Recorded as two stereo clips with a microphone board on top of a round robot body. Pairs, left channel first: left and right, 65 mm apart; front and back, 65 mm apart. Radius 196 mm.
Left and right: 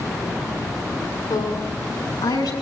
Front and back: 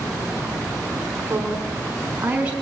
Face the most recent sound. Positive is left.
turn(degrees=110)